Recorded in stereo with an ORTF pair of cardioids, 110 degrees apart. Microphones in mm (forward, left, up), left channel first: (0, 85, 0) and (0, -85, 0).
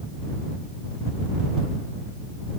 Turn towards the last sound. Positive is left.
No sound to turn to.